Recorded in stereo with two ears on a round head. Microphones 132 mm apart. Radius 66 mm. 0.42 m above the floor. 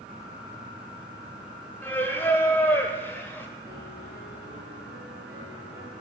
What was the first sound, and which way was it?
Singing, 15° left (ahead or behind).